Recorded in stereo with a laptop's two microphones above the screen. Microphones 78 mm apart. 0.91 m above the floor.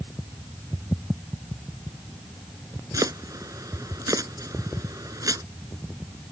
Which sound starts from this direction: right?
Chopping, at 2.9 s.